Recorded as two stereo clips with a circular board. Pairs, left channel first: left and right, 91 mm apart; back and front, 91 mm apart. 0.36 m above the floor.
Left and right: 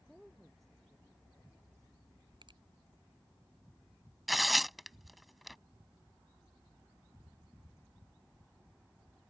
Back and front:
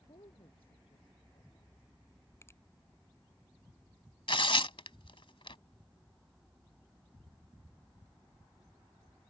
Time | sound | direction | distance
0.1 | a woman speaking | straight behind | ?
2.4 | a finger snap | 120° right | ?
4.3 | tearing paper | straight behind | ?